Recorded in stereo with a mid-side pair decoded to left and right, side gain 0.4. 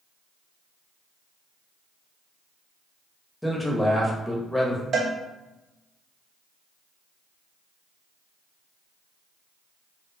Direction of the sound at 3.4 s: 10° left.